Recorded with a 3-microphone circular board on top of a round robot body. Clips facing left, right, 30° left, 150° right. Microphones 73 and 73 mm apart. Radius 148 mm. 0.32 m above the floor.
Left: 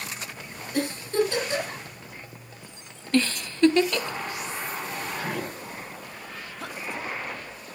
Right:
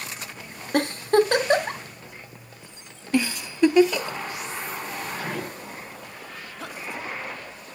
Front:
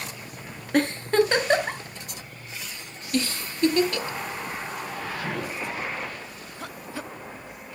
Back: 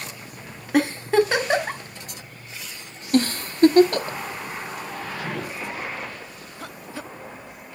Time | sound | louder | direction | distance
0.7 | a giggle | right 5 dB, back 2 dB | 65° right | 1.7 m
3.1 | a giggle | even, back 7 dB | 165° right | 0.8 m